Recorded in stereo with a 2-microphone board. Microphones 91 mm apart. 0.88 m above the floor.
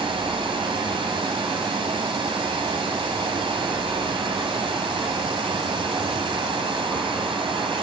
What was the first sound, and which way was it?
Running water, 75° right (ahead or behind).